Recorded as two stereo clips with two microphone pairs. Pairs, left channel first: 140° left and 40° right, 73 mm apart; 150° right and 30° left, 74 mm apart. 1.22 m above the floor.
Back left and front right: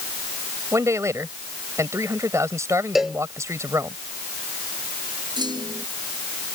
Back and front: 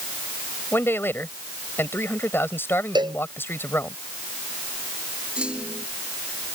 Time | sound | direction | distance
0.7 | a man speaking | 90° right | ?
3.0 | a cowbell | 45° left | ?
5.4 | a clunk | 45° right | ?